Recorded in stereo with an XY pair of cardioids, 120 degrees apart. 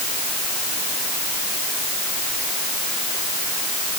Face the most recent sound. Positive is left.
No sound to turn to.